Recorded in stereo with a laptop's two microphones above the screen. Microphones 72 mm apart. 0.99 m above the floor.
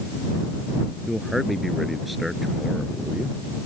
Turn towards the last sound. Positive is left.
turn(degrees=0)  # may be behind; listen again after turning